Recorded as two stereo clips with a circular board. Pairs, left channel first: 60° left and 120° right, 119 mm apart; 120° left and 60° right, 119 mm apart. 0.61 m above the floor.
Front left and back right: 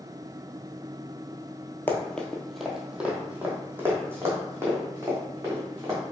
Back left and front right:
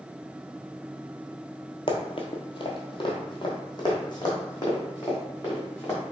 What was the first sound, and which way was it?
Running footsteps, 125° left.